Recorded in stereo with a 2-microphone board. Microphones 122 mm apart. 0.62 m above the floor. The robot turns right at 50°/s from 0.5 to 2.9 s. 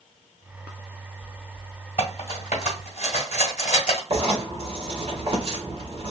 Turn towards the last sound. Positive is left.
turn(degrees=-45)  # may be behind; listen again after turning